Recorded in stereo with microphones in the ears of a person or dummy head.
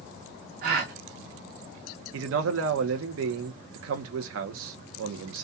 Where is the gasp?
55° right (ahead or behind), 0.7 m.